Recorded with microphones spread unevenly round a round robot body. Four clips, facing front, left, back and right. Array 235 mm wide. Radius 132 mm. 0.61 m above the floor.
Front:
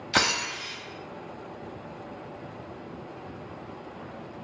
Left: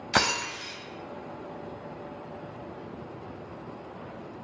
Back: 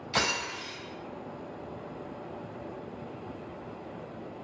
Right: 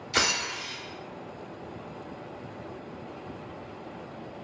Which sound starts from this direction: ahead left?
Breaking glass, at 0.1 s.